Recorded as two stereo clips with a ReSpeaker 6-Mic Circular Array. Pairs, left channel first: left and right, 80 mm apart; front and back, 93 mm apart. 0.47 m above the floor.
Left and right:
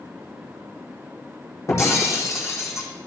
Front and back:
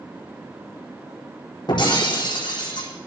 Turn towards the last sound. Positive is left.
turn(degrees=35)